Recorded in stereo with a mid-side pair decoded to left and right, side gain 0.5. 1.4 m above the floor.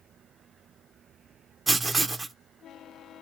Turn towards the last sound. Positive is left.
turn(degrees=-30)